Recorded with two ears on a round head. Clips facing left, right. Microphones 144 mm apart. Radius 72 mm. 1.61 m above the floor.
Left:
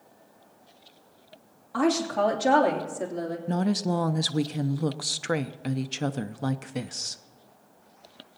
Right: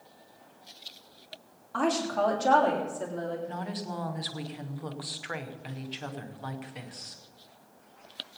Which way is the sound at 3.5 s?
55° left (ahead or behind).